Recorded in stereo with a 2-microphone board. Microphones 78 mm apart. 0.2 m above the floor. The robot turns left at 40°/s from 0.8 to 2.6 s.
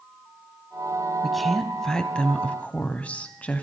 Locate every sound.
1.2 s a woman speaking: centre (ahead or behind), 1.0 m; by 3.6 s 20° left (ahead or behind), 1.0 m